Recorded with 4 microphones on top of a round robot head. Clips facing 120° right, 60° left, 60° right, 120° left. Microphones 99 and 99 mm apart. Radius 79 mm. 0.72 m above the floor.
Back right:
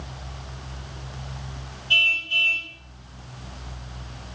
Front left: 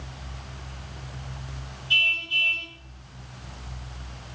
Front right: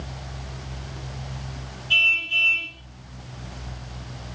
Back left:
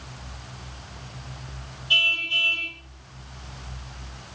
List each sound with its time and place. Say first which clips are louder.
1.9 s a car horn: back right 2 dB, front right 2 dB; 165° right, 8 m